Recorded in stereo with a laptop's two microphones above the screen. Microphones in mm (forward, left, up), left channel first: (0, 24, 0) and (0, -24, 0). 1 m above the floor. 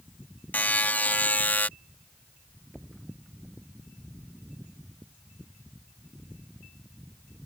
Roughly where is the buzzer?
Left.